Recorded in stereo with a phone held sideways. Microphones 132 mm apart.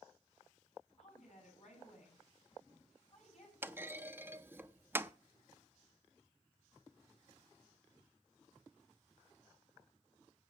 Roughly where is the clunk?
Centre.